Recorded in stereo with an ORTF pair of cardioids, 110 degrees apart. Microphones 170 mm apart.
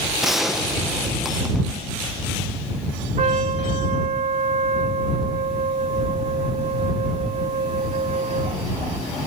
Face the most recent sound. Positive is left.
turn(degrees=-45)